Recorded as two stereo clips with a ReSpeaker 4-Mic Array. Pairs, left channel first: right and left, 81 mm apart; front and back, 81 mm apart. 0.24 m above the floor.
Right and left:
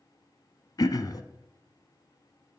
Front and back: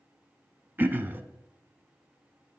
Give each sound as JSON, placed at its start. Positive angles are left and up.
{"t": 0.8, "sound": "throat clearing", "azimuth_deg": -120, "distance_m": 0.7}